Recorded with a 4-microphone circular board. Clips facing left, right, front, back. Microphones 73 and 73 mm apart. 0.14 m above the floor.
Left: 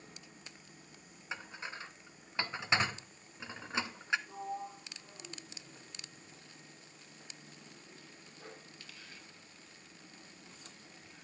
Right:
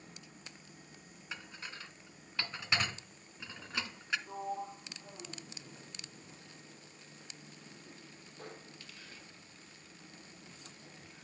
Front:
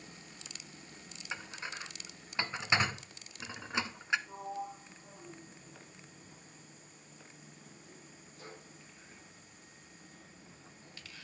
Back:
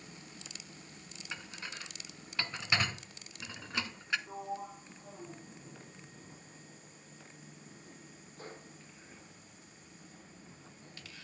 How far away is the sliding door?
About 3 m.